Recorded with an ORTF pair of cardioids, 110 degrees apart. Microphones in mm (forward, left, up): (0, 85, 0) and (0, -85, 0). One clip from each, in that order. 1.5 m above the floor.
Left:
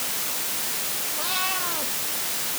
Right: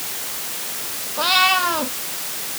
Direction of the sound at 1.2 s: 65° right.